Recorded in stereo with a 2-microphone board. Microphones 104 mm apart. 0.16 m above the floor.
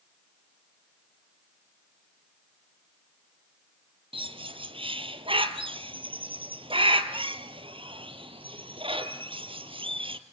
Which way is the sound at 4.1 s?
60° right (ahead or behind).